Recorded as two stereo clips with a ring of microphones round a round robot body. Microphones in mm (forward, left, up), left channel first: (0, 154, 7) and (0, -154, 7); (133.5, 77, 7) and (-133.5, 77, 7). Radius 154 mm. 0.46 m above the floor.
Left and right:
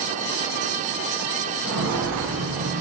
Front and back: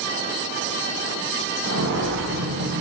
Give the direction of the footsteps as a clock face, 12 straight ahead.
4 o'clock.